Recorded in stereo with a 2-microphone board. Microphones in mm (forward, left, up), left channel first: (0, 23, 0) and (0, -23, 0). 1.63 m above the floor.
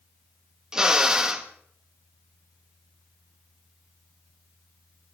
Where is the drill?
15° right (ahead or behind), 1.4 m.